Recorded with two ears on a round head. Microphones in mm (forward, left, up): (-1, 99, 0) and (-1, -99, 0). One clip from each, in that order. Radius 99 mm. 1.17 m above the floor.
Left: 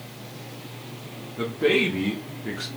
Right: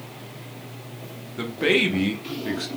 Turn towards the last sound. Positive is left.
turn(degrees=-10)  # may be behind; listen again after turning